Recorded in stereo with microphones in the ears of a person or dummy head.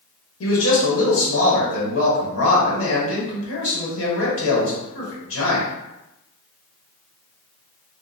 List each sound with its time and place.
0.4 s a man speaking: 75° left (ahead or behind), 1.3 m